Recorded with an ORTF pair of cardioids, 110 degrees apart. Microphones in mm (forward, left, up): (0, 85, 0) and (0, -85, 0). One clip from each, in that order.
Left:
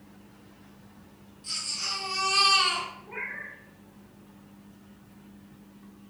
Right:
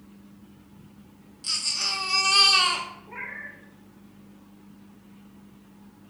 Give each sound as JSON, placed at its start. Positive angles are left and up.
{"t": 1.4, "sound": "a baby crying", "azimuth_deg": -65, "distance_m": 0.7}
{"t": 3.1, "sound": "a cat meowing", "azimuth_deg": 10, "distance_m": 0.9}